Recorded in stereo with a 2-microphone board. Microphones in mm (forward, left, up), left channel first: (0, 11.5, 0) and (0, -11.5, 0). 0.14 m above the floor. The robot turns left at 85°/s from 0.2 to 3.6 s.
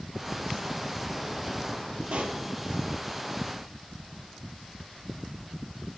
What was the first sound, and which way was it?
A pop, 70° right (ahead or behind).